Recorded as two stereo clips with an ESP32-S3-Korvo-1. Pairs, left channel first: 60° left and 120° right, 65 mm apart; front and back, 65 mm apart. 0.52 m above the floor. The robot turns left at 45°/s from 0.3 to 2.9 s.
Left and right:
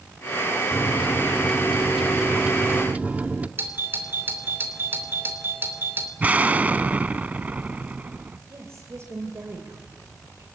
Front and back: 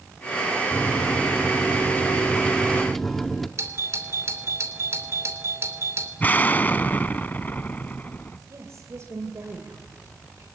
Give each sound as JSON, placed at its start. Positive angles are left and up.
{"t": 0.7, "sound": "a microwave", "azimuth_deg": 15, "distance_m": 0.8}
{"t": 3.6, "sound": "a doorbell", "azimuth_deg": -160, "distance_m": 2.5}
{"t": 6.2, "sound": "an explosion", "azimuth_deg": -60, "distance_m": 0.6}
{"t": 8.5, "sound": "a woman speaking", "azimuth_deg": -150, "distance_m": 2.5}